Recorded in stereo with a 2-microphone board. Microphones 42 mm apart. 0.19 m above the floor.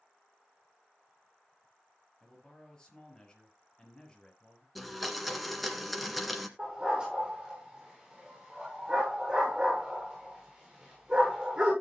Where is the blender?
Centre (ahead or behind), 1.7 m.